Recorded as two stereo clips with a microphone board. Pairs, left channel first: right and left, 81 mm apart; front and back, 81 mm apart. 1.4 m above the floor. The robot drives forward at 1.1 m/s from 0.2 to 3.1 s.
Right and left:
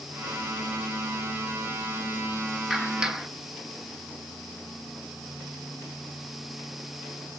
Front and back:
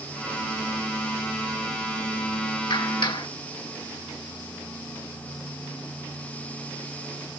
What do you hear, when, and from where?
2.7 s a clap: 5° left, 1.8 m